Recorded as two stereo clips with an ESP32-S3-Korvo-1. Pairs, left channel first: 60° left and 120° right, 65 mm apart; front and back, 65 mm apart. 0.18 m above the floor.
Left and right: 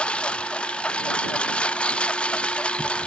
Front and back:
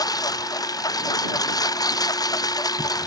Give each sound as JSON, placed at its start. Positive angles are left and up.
{"t": 0.0, "sound": "a lawn mower", "azimuth_deg": -10}